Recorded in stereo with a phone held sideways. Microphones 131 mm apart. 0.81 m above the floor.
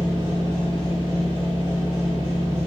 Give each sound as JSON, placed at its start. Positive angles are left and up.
{"t": 0.0, "sound": "a machine running", "side_deg": 35, "distance_m": 1.7}